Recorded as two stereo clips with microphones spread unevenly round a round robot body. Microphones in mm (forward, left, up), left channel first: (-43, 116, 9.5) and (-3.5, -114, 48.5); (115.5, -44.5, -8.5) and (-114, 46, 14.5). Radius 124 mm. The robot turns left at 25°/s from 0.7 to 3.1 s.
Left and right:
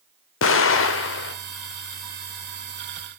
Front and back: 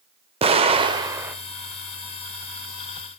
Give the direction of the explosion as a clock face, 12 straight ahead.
9 o'clock.